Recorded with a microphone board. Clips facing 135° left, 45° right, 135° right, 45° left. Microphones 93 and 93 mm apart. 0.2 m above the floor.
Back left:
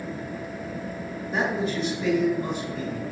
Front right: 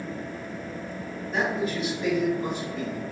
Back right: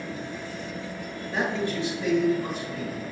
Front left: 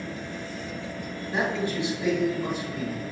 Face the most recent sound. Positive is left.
turn(degrees=-10)